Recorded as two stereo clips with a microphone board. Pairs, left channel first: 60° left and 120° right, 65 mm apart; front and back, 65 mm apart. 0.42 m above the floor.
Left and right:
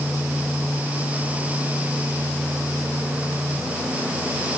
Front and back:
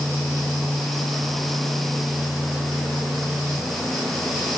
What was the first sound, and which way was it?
Only background noise.